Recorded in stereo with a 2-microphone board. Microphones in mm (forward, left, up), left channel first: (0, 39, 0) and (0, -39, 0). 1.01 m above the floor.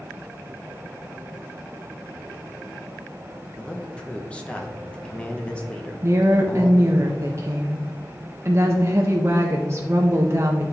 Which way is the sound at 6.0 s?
35° right (ahead or behind).